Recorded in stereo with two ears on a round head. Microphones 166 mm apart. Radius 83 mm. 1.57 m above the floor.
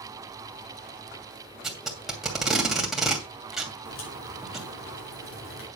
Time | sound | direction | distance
1.6 | tape being pulled | centre (ahead or behind) | 2.5 m
3.9 | a crack | 85° left | 5 m